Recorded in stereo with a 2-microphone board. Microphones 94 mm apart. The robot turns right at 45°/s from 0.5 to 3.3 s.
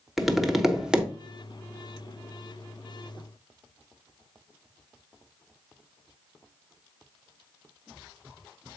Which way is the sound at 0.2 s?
Centre (ahead or behind).